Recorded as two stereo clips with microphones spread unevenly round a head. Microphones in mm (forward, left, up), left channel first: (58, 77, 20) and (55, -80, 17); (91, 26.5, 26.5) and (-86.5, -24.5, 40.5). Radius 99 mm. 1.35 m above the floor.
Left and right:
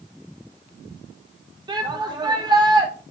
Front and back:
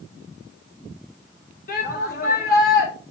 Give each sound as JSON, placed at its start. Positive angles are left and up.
{"t": 1.7, "sound": "a shout", "azimuth_deg": -30, "distance_m": 3.0}